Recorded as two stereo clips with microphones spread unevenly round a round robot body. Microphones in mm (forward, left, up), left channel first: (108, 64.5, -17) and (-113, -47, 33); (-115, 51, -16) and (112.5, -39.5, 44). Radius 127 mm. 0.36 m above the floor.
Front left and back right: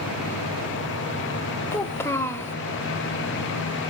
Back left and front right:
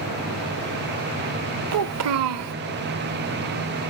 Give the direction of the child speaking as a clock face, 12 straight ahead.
1 o'clock.